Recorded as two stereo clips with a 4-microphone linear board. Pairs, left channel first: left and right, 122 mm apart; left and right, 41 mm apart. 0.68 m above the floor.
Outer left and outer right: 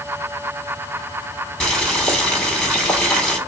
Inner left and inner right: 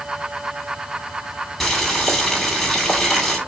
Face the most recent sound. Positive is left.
turn(degrees=5)  # may be behind; listen again after turning